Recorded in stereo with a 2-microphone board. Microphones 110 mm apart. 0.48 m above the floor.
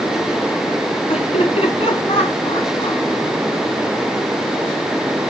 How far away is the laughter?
About 5.5 m.